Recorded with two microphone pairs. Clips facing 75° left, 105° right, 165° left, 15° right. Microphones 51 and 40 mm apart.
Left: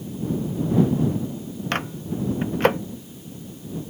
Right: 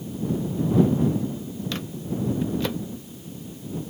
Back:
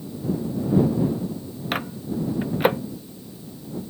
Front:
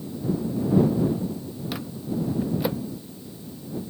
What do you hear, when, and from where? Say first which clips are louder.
1.7 s a microwave: left 5 dB, back 4 dB; 120° left